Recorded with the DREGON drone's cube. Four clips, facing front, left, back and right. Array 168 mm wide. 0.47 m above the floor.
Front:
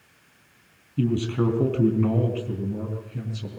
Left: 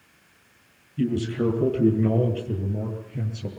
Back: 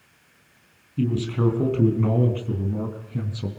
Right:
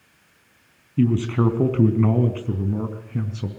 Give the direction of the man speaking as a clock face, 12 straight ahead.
3 o'clock.